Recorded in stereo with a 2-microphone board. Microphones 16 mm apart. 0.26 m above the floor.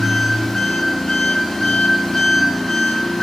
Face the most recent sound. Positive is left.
turn(degrees=55)  # may be behind; listen again after turning